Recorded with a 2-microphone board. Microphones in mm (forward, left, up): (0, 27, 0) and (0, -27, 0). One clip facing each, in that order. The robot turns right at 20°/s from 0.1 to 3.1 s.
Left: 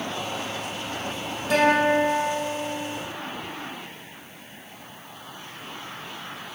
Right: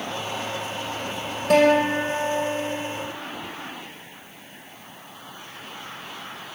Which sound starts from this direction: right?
A guitar, at 1.5 s.